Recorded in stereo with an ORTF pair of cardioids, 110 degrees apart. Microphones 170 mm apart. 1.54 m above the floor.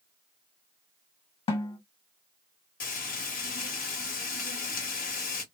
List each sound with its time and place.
1.5 s a snare drum: 35° left, 1.7 m
2.8 s frying: 50° left, 1.4 m